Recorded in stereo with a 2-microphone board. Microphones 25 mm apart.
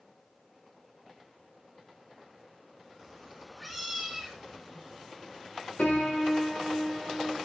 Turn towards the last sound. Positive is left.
turn(degrees=75)  # may be behind; listen again after turning